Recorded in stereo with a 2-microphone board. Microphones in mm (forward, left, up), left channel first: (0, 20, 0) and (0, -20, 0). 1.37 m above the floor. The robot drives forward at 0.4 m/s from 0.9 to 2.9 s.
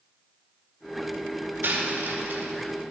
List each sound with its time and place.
1.6 s a dropped coin: 55° right (ahead or behind), 2.5 m; by 2.5 s 50° right (ahead or behind), 2.5 m